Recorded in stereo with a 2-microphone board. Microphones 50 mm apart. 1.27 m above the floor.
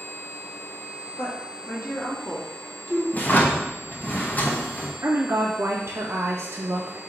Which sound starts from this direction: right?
A woman speaking, at 5.0 s.